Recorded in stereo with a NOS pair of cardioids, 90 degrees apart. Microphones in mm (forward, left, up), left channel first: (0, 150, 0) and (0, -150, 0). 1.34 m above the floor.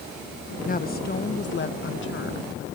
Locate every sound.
0.6 s a woman speaking: 30° left; by 2.7 s 45° left